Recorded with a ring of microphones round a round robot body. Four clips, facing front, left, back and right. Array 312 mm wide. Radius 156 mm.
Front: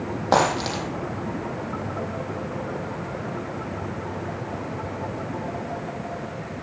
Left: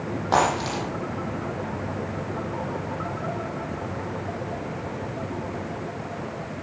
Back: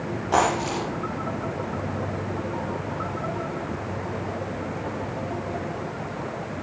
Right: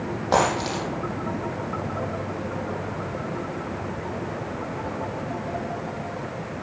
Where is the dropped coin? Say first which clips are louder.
Even, front 1 dB; 5° right, 8 m.